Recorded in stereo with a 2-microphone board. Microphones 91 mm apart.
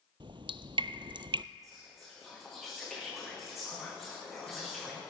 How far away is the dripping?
About 0.5 m.